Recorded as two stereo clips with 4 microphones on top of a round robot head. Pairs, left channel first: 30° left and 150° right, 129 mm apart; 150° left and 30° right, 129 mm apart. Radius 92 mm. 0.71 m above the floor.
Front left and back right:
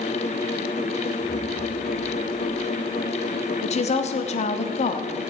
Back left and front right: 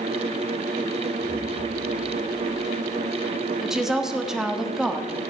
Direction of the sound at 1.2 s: 150° left.